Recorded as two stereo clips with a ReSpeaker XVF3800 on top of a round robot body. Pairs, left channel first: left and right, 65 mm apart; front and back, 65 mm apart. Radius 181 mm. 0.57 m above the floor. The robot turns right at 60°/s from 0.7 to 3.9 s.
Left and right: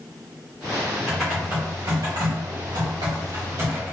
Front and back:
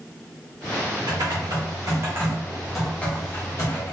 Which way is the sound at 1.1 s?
170° left.